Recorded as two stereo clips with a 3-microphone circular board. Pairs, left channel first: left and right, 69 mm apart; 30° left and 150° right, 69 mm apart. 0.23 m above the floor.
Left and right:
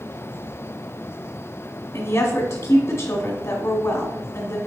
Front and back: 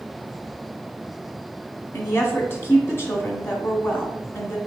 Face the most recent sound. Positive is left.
turn(degrees=65)